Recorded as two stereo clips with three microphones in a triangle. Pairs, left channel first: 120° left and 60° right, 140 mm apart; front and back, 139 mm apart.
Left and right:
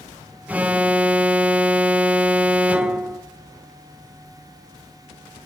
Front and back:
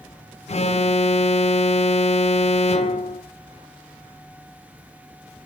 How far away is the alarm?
About 0.6 m.